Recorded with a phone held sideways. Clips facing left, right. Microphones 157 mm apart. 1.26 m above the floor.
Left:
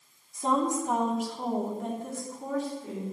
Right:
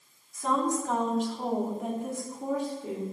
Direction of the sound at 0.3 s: 30° left (ahead or behind).